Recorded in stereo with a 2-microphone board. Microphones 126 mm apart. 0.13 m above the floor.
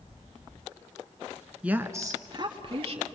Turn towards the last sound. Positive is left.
turn(degrees=-50)  # may be behind; listen again after turning